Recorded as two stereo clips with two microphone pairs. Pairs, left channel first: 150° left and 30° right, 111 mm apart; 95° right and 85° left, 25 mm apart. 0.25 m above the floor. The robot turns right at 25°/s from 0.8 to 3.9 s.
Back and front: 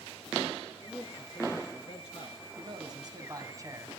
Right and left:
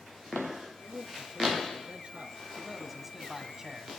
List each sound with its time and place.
0.8 s a man speaking: 80° left, 3 m; by 2.5 s 125° left, 3 m
2.6 s a man speaking: 5° right, 1.9 m; by 4.0 s 25° left, 1.9 m